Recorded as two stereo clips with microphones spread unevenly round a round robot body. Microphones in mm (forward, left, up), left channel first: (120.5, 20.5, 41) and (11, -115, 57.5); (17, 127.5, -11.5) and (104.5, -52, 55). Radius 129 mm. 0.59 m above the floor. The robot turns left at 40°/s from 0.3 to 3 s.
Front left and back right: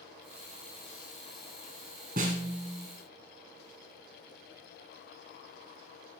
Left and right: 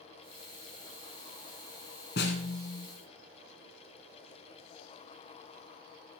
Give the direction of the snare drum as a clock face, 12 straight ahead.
6 o'clock.